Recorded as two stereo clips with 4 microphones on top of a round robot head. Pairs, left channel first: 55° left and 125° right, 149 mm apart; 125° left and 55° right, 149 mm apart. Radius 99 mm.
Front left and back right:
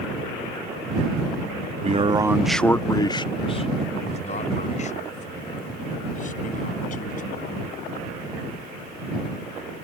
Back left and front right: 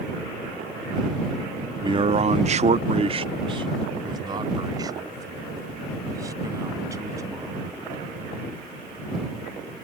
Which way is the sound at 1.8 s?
105° right.